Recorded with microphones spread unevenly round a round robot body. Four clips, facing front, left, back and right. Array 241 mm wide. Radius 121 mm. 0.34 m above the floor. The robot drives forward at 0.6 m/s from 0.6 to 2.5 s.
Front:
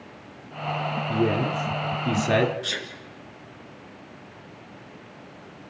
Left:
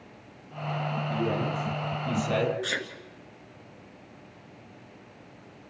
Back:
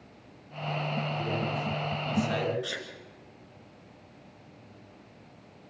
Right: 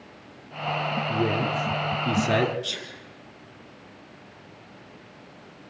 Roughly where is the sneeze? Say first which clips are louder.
Left 5 dB, front 4 dB; ahead left.